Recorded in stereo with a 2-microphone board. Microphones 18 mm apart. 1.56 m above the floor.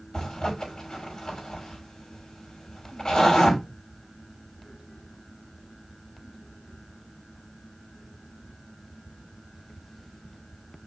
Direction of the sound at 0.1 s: 60° left (ahead or behind).